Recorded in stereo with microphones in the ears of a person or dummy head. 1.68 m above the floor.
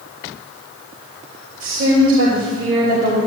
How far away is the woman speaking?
About 3 m.